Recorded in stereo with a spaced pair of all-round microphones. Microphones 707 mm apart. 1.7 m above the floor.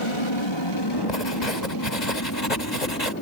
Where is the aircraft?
45° left (ahead or behind); by 3.2 s 15° left (ahead or behind).